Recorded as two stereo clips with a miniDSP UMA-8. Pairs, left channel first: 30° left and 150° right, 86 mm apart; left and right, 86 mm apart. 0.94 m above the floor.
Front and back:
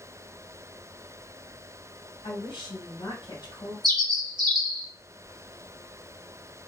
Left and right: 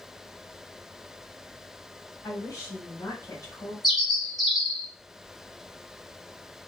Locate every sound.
2.2 s a woman speaking: 40° left, 1.9 m
3.8 s a bird: 175° right, 1.1 m